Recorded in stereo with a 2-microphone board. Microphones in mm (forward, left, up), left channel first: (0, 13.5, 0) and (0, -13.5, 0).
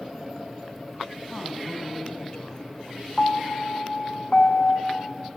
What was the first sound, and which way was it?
A woman speaking, 25° left (ahead or behind).